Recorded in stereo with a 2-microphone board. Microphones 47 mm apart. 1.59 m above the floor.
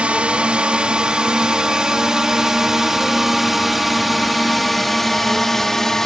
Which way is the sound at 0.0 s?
25° right (ahead or behind).